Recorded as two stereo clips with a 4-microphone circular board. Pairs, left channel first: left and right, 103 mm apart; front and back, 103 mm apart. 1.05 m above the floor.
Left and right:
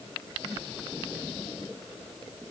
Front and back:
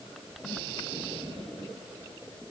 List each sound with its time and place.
Only background noise.